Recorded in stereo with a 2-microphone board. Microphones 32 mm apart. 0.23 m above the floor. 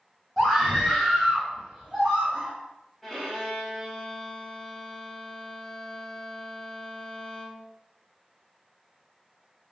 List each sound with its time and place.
0.4 s a scream: 5° left (ahead or behind), 1.1 m; by 2.5 s 10° right (ahead or behind), 1.3 m
3.0 s a violin: 5° left (ahead or behind), 0.8 m